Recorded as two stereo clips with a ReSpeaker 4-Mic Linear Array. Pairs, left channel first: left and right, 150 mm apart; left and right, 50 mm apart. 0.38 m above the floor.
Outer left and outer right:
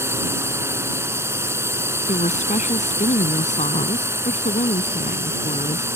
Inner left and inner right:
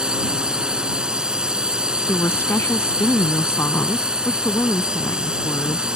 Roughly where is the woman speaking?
Left.